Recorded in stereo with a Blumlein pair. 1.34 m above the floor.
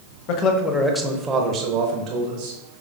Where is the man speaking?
40° left, 0.7 m; by 2.6 s 45° right, 1.5 m.